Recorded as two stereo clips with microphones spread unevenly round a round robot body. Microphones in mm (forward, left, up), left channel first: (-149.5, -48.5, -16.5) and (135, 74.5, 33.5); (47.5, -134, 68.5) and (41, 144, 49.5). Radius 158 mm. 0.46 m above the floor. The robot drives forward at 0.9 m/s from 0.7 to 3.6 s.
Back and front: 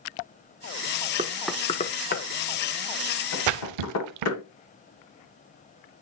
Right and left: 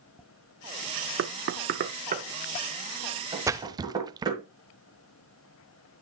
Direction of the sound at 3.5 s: 10° left.